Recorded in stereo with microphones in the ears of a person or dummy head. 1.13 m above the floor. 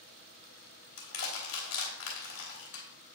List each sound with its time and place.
1.0 s crushing: 85° left, 3 m